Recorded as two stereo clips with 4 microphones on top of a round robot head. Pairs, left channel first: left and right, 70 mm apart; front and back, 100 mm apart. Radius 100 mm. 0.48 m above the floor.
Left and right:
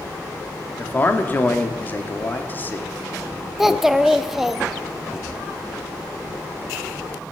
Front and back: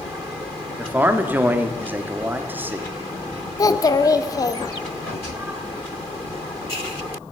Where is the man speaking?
125° left, 1.1 m.